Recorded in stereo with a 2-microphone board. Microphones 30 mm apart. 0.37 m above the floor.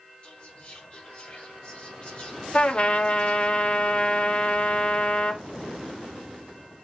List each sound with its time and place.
0.2 s whispering: 35° left (ahead or behind), 1.5 m
2.5 s a trumpet: 40° left (ahead or behind), 0.6 m